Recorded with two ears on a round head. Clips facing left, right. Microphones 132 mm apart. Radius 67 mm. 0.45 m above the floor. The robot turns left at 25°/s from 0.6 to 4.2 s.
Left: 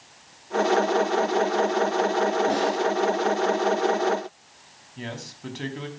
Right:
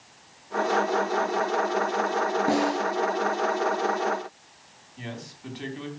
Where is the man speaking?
55° left (ahead or behind), 3.5 m.